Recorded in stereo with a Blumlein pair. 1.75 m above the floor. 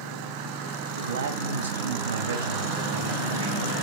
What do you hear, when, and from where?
1.0 s a man speaking: 65° right, 2.5 m; by 3.8 s 70° right, 4 m